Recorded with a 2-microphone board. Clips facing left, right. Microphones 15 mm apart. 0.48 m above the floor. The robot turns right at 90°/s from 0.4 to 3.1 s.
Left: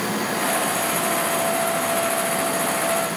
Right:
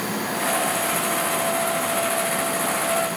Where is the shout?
I don't hear a shout.